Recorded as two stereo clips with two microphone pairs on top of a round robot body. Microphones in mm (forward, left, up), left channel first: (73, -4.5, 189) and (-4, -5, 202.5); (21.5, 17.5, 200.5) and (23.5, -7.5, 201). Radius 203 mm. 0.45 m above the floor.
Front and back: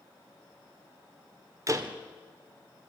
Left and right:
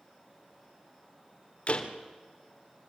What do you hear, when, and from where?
1.7 s a door slam: 130° left, 1.9 m